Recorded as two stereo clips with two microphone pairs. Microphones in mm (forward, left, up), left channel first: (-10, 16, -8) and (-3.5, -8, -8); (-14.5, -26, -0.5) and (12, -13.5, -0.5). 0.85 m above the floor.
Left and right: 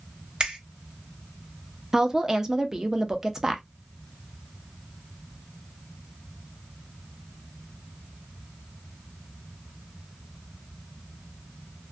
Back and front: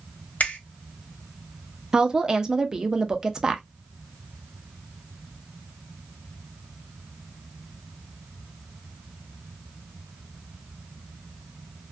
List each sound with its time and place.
0.4 s a finger snap: 130° right, 1.1 m
1.9 s a woman speaking: 30° right, 0.5 m